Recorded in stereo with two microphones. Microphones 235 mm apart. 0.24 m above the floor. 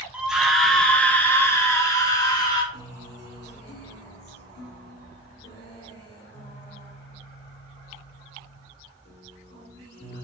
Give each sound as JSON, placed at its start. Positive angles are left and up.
{"t": 0.1, "sound": "a scream", "side_deg": -5, "distance_m": 1.6}
{"t": 2.7, "sound": "a guitar", "side_deg": 45, "distance_m": 3.0}